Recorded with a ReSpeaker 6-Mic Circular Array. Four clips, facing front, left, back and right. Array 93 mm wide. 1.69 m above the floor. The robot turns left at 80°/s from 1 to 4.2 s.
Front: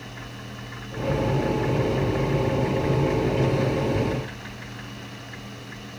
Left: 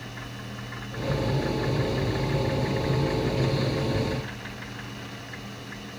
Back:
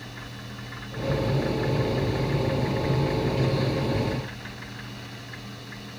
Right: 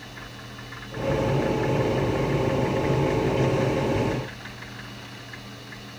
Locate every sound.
Only background noise.